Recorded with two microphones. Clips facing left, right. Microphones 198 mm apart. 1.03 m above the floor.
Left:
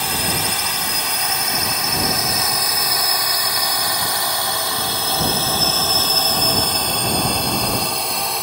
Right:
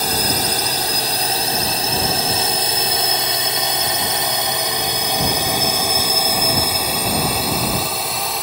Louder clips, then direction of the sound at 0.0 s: Right 3 dB; 40° right (ahead or behind).